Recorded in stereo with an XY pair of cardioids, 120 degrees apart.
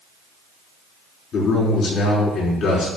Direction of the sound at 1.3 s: 50° left.